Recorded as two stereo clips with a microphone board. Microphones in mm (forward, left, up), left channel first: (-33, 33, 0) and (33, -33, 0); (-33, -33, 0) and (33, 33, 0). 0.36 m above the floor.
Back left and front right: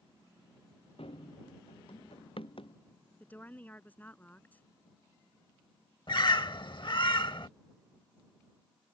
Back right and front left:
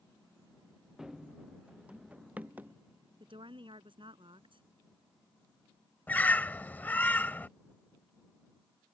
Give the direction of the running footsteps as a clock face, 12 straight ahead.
8 o'clock.